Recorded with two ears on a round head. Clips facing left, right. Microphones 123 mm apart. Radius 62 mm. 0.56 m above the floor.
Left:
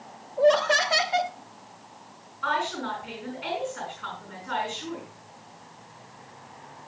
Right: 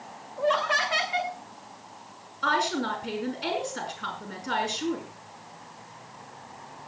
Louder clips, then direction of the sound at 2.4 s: Right 2 dB; 45° right (ahead or behind).